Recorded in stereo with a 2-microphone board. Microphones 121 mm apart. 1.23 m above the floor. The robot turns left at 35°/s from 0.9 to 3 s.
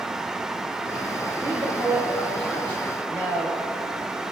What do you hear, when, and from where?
1.4 s a woman speaking: 150° right, 2.0 m; by 3.6 s 155° left, 2.0 m